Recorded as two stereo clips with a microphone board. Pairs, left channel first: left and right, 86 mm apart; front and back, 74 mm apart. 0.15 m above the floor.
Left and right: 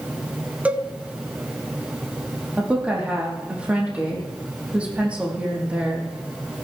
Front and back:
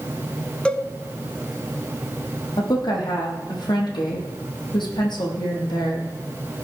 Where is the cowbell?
50° right, 1.2 m.